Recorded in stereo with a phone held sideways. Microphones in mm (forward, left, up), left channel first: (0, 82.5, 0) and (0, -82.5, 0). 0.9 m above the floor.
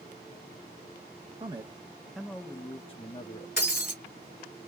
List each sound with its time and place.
1.4 s a man speaking: 30° right (ahead or behind), 0.9 m; by 3.5 s 50° left (ahead or behind), 1.2 m
3.6 s breaking glass: 70° left (ahead or behind), 1.8 m